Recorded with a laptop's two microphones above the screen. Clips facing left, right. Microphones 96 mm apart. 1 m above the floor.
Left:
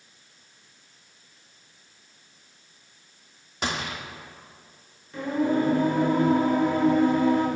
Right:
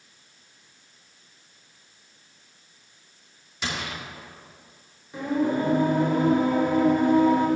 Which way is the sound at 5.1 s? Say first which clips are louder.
Even; 15° right (ahead or behind).